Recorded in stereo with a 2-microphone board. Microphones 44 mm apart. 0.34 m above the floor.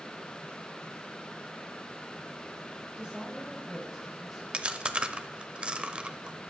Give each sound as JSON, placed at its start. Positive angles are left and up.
{"t": 3.0, "sound": "a woman speaking", "side_deg": -20, "distance_m": 3.0}
{"t": 4.5, "sound": "chewing", "side_deg": -25, "distance_m": 0.8}